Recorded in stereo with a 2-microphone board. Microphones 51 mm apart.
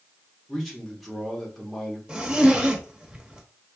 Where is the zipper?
20° right (ahead or behind), 1.0 m.